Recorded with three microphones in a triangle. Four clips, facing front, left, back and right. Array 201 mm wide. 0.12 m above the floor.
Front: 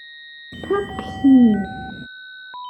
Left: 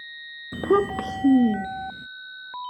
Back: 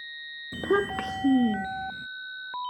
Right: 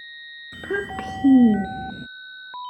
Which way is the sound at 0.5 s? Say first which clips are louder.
Left 7 dB, front 3 dB; 85° left.